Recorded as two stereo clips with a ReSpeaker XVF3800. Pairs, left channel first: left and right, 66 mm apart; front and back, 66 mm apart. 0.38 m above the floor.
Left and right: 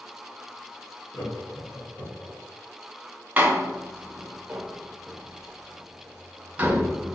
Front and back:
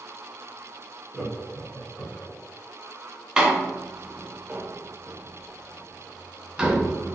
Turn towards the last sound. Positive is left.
turn(degrees=-115)